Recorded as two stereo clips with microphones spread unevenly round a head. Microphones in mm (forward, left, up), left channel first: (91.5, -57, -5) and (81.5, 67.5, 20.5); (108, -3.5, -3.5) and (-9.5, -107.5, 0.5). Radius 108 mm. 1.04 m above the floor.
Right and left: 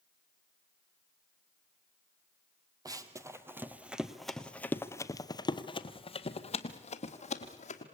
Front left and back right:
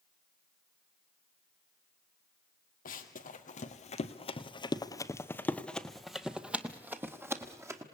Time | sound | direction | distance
2.9 | running footsteps | 55° left | 1.7 m